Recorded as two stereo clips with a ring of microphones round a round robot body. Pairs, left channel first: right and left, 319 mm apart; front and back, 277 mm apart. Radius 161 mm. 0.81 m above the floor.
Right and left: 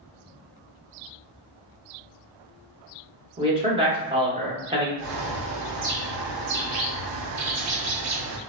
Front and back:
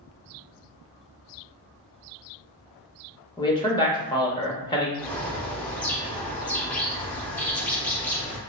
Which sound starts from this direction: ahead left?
A man speaking, at 3.4 s.